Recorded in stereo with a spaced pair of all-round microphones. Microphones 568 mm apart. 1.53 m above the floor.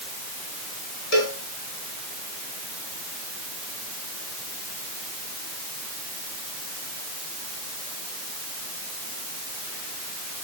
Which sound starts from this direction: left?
A cowbell, at 1.1 s.